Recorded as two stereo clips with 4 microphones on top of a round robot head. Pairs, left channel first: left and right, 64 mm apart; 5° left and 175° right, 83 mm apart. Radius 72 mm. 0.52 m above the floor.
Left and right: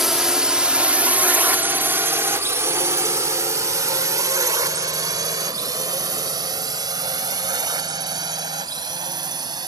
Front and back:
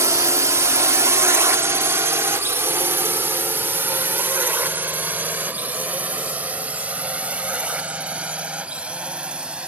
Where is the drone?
170° right; by 9.7 s 100° right.